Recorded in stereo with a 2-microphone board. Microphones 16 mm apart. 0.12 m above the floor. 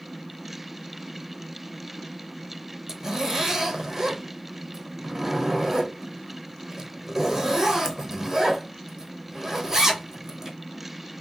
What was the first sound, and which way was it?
A zipper, 30° right (ahead or behind).